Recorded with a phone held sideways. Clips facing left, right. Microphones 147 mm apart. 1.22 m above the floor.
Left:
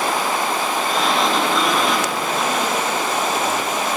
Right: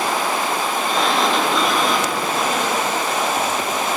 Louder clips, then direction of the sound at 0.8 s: Right 1 dB; centre (ahead or behind).